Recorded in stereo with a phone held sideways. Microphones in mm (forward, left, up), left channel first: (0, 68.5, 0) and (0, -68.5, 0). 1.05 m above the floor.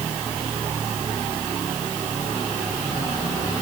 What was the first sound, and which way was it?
Only background noise.